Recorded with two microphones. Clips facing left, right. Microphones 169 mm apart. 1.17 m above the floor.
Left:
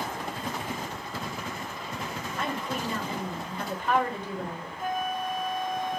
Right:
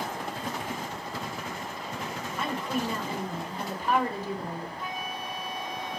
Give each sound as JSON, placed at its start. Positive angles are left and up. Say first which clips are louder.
{"t": 2.4, "sound": "a woman speaking", "louder": "right 2 dB", "side_deg": -5, "distance_m": 4.0}
{"t": 4.8, "sound": "a flute", "louder": "left 6 dB", "side_deg": 50, "distance_m": 0.5}